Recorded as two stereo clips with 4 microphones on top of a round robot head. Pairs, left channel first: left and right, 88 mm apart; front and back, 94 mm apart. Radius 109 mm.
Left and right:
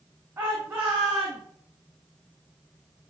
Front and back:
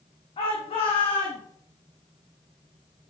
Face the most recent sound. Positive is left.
turn(degrees=-15)